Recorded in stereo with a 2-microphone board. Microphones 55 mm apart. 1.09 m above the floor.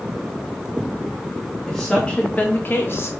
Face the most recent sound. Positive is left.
turn(degrees=50)  # may be behind; listen again after turning